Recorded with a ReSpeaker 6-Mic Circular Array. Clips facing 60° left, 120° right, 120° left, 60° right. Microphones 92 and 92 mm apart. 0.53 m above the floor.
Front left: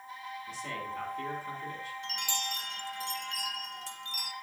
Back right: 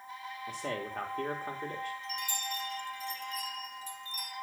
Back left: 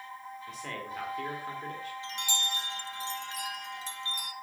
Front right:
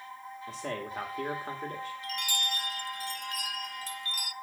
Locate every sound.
0.5 s a man speaking: 110° right, 1.4 m
2.0 s a chime: 55° left, 0.6 m